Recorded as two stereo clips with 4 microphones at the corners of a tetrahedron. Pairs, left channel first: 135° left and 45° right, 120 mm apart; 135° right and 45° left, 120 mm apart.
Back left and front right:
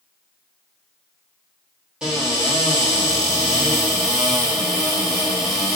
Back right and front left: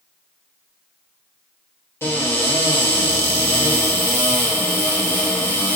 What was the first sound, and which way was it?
A cupboard door, 110° right.